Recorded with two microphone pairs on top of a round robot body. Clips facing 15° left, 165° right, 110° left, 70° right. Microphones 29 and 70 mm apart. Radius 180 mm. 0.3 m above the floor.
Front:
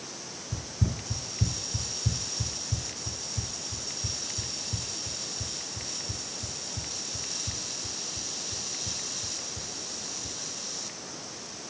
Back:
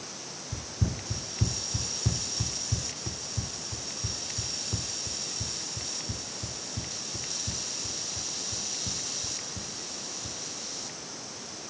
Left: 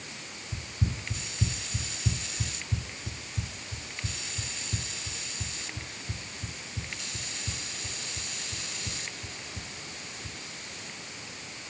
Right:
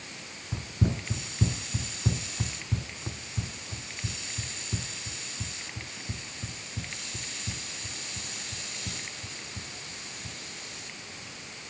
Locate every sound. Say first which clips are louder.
0.5 s running footsteps: front 1 dB, right 5 dB; 70° right; by 10.4 s 125° right